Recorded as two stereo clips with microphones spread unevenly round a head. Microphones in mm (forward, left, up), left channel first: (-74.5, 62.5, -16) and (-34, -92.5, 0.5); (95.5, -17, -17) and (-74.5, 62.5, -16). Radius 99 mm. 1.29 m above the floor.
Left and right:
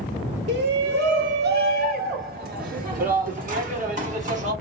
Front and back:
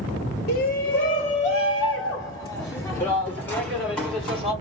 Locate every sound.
0.5 s a shout: 65° right, 1.4 m; by 4.5 s 110° right, 3 m